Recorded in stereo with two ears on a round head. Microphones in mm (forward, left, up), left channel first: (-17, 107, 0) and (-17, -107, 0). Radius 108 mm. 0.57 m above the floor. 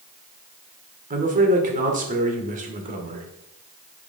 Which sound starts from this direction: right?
A man speaking, at 1.1 s.